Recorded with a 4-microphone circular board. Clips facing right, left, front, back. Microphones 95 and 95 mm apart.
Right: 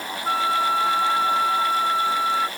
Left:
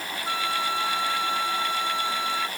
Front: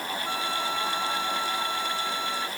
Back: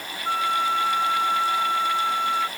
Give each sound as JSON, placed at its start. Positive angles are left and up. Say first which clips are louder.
{"t": 0.2, "sound": "a flute", "louder": "right 7 dB, back 10 dB", "azimuth_deg": -140}